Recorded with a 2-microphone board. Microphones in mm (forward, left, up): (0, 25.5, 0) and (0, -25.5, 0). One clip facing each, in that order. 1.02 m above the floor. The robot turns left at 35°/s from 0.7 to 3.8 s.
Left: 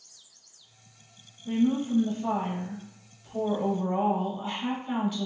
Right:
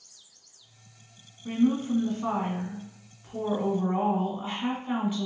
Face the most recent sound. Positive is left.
turn(degrees=-150)